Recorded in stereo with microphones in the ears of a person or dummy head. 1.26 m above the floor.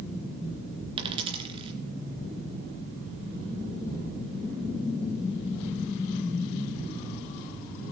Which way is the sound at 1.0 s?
30° right (ahead or behind).